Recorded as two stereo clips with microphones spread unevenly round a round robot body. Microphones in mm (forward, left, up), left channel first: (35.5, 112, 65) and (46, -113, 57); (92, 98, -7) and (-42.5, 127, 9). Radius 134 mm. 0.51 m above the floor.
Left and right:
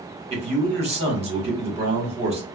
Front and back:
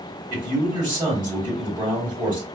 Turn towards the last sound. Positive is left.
turn(degrees=-130)